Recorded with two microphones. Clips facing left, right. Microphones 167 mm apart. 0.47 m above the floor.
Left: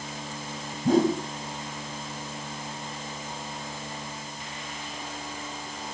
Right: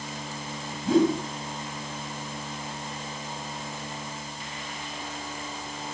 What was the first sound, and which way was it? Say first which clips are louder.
A whoosh: even; 45° left (ahead or behind).